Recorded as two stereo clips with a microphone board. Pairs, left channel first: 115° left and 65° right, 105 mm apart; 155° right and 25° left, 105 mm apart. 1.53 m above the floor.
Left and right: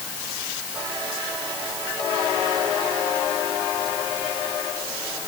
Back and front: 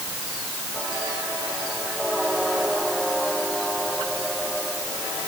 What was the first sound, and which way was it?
Only background noise.